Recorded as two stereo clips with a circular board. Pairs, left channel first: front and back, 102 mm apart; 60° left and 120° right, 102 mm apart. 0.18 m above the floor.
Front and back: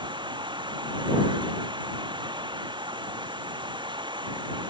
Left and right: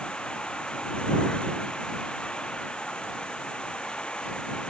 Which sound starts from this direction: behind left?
Running water, at 0.0 s.